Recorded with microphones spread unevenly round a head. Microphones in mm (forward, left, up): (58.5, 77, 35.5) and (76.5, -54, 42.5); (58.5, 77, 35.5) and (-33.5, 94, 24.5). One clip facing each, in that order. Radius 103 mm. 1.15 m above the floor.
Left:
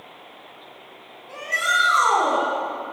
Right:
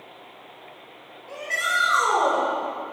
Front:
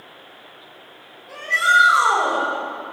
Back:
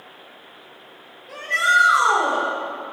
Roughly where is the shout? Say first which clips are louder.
Left 2 dB, front 2 dB; right.